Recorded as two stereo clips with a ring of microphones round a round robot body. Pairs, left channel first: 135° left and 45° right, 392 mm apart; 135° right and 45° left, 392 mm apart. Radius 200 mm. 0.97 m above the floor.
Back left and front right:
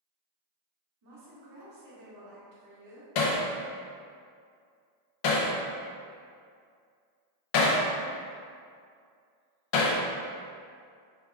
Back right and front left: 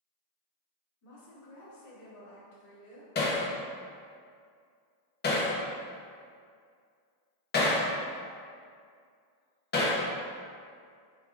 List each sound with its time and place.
1.0 s a woman speaking: 90° right, 2.0 m
3.1 s hammering: 160° left, 0.7 m